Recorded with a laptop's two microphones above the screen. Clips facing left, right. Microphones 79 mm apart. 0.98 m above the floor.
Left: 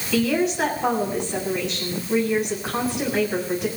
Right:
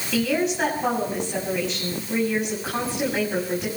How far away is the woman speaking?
About 7.5 m.